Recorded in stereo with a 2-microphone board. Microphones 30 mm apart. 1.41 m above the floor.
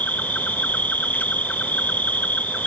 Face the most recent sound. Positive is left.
turn(degrees=75)  # may be behind; listen again after turning